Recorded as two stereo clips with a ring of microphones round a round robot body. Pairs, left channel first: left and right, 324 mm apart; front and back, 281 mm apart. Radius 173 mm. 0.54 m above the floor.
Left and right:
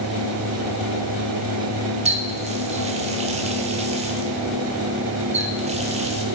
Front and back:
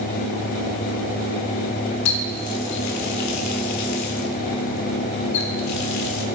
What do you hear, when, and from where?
2.0 s a running tap: 20° right, 1.2 m